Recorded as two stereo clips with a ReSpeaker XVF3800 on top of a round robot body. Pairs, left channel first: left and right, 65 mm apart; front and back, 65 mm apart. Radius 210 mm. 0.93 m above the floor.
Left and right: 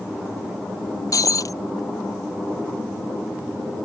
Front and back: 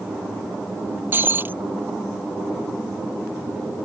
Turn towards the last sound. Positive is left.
turn(degrees=120)